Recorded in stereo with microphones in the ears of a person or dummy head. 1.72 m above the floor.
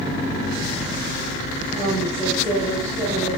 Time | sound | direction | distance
1.7 | a woman speaking | 10° right (ahead or behind) | 3.5 m